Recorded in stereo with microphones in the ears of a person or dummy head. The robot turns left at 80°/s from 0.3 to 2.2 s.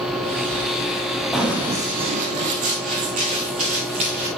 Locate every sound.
1.3 s running footsteps: centre (ahead or behind), 1.8 m; by 4.3 s 35° right (ahead or behind), 5 m